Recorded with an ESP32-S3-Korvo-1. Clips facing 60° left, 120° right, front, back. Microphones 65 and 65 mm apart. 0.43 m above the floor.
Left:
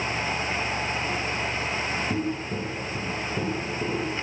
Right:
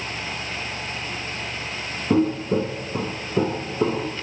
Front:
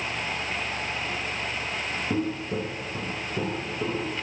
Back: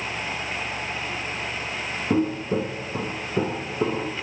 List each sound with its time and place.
2.1 s footsteps: 115° right, 1.1 m; by 4.1 s 120° right, 2.5 m